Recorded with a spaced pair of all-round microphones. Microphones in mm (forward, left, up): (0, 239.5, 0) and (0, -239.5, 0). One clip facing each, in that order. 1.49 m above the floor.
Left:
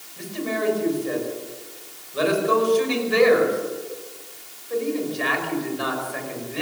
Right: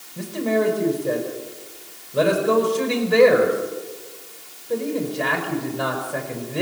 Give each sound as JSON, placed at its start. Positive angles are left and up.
{"t": 0.2, "sound": "a man speaking", "side_deg": -70, "distance_m": 5.5}